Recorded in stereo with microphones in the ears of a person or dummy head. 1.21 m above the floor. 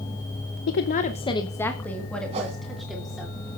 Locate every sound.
0.7 s a woman speaking: 70° left (ahead or behind), 0.6 m; by 3.3 s 5° right (ahead or behind), 3 m
2.3 s a whoosh: 35° right (ahead or behind), 3 m